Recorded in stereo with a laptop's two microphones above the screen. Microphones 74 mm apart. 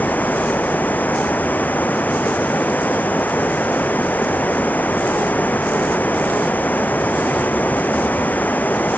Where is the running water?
25° left (ahead or behind).